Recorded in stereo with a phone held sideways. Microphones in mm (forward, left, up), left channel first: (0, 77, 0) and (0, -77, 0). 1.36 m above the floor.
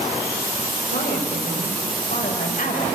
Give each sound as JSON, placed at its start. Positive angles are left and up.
{"t": 0.9, "sound": "a woman speaking", "side_deg": 65, "distance_m": 5.0}